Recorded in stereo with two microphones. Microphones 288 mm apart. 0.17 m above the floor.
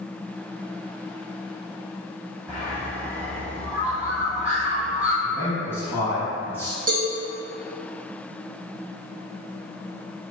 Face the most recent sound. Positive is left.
turn(degrees=-55)  # may be behind; listen again after turning